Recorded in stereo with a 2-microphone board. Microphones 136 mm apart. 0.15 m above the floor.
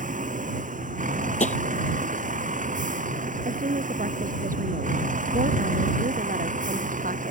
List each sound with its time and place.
0.0 s a vehicle: 70° right (ahead or behind)
1.4 s tapping: 65° left (ahead or behind)
3.5 s a woman speaking: 85° right